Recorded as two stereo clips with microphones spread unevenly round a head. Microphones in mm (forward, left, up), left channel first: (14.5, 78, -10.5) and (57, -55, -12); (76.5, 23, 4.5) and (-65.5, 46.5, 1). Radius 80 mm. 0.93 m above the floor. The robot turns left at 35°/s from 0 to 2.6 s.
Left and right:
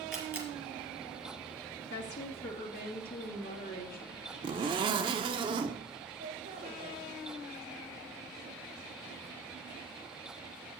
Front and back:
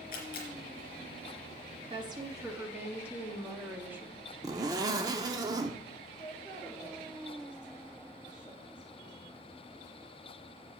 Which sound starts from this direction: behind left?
A woman speaking, at 1.9 s.